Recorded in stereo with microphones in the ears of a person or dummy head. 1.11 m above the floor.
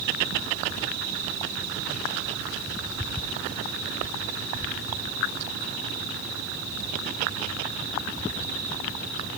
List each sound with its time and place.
Only background noise.